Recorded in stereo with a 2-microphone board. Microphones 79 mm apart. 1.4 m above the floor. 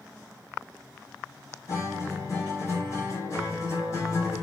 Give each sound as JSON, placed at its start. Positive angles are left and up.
{"t": 1.7, "sound": "a guitar", "side_deg": 40, "distance_m": 5.0}